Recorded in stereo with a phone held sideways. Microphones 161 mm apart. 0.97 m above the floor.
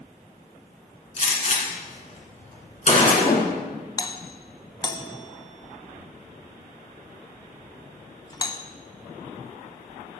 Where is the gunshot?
45° left (ahead or behind), 2 m.